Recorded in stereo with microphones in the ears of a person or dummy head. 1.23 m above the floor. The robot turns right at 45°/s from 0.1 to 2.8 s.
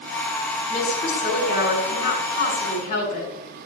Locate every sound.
0.7 s a woman speaking: 45° left, 6 m; by 3.3 s 140° left, 6 m